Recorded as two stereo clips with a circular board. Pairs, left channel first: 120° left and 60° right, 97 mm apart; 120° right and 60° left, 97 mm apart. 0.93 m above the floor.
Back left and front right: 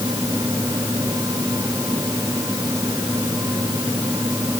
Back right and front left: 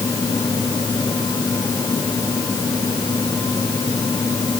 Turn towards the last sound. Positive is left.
No sound to turn to.